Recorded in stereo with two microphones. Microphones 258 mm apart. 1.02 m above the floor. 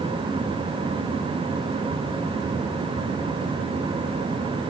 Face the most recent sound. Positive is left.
No sound to turn to.